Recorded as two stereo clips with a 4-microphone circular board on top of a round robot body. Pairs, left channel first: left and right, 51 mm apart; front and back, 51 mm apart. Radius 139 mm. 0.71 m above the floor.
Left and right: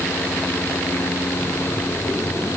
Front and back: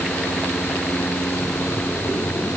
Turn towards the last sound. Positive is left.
No sound to turn to.